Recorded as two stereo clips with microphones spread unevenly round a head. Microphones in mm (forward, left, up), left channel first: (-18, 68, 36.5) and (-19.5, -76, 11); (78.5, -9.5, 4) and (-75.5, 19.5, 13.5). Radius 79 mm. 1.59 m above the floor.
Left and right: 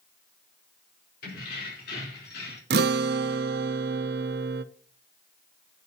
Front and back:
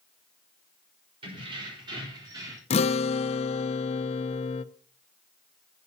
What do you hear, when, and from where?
1.2 s keys jangling: 110° left, 4.5 m; by 2.6 s 100° left, 3 m
2.7 s a guitar: 60° right, 0.5 m